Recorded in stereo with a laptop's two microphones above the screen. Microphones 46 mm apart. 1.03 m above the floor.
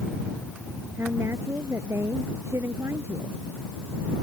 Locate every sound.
1.0 s a woman speaking: 75° right (ahead or behind)